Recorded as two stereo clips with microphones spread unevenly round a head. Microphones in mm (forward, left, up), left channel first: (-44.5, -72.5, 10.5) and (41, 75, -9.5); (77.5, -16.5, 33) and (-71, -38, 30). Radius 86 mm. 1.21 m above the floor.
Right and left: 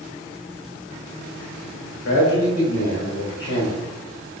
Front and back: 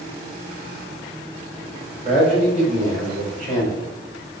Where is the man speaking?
130° right, 4.5 m; by 3.7 s 145° right, 5 m.